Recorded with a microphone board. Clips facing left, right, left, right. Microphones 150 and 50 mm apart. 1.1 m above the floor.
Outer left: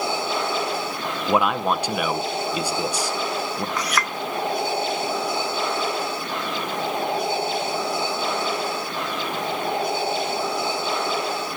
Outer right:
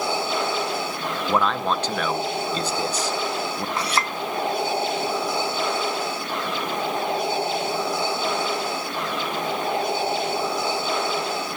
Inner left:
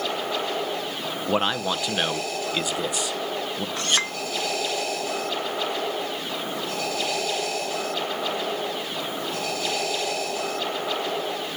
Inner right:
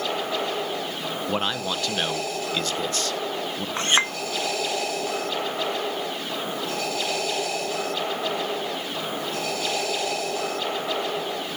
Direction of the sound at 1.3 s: 10° left (ahead or behind).